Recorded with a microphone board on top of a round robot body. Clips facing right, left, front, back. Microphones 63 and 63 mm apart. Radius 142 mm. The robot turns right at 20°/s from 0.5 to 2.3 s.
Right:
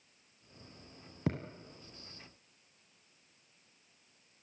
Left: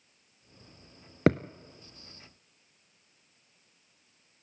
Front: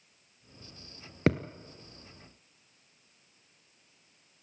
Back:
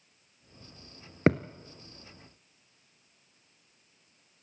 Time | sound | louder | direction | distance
1.3 | a thud | left 12 dB, back 3 dB | 120° left | 0.5 m